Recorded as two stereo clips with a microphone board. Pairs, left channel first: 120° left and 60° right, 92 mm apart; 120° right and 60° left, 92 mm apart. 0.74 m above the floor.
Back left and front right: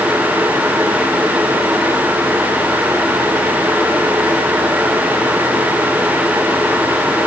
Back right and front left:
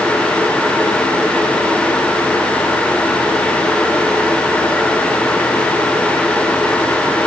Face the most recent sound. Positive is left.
No sound to turn to.